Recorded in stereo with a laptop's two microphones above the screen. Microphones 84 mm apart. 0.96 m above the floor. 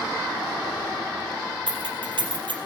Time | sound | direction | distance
1.7 | keys jangling | 75° right (ahead or behind) | 4.5 m